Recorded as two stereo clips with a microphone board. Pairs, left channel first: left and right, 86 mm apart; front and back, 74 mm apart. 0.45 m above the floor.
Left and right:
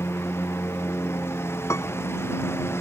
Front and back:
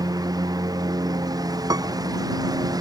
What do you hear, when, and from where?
0.0 s a lawn mower: 150° left
1.7 s a piano: 145° left